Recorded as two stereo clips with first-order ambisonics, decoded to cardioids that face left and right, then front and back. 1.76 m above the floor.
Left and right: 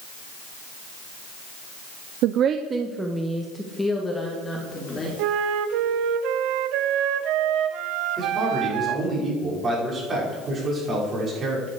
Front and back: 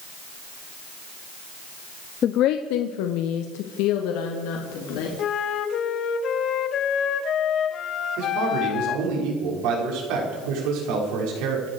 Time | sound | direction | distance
2.2 | a woman speaking | 60° right | 0.7 m
5.2 | a flute | 55° right | 1.0 m
8.2 | a man speaking | 160° right | 6 m